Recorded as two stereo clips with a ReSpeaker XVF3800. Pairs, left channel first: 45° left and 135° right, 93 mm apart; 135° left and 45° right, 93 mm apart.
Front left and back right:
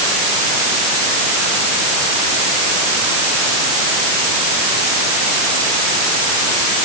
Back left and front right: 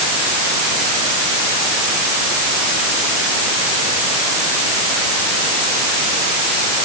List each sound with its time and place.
Only background noise.